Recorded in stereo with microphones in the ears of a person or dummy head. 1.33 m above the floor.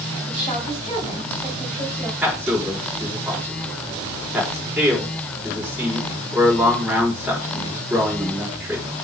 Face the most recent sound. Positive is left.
turn(degrees=-10)  # may be behind; listen again after turning